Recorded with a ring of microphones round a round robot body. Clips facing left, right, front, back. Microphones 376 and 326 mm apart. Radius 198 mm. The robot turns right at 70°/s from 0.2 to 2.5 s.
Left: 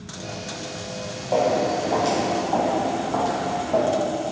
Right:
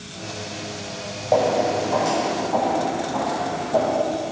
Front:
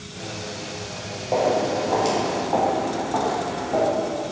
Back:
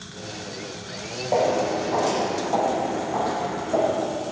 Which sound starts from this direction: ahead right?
Footsteps, at 1.3 s.